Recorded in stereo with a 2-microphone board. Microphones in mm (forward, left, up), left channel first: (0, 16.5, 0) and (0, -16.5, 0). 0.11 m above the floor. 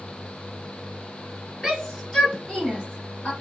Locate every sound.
1.6 s a shout: 10° left (ahead or behind), 1.8 m; by 3.3 s 35° left (ahead or behind), 2 m